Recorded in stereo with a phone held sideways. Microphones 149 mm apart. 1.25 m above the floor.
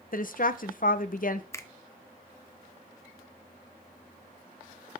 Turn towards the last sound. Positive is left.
turn(degrees=20)  # may be behind; listen again after turning